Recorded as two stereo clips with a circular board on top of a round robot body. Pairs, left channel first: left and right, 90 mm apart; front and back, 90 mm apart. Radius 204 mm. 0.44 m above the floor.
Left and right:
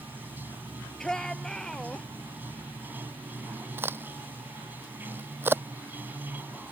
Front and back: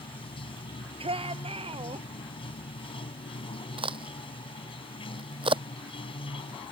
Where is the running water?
20° right.